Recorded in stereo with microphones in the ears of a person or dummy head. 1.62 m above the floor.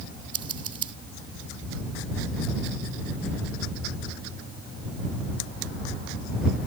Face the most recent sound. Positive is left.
turn(degrees=-30)  # may be behind; listen again after turning